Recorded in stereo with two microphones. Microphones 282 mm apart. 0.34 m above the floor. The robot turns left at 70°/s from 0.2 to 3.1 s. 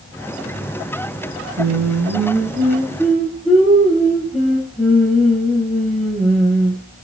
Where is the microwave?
I don't hear a microwave.